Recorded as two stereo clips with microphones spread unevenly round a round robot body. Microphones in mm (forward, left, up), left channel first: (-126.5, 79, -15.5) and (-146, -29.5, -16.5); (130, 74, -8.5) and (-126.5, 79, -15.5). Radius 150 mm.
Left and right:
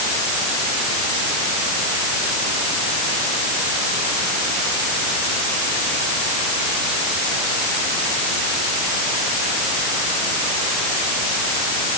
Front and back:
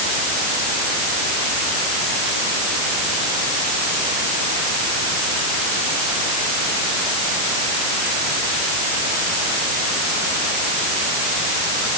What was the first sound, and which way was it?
Only background noise.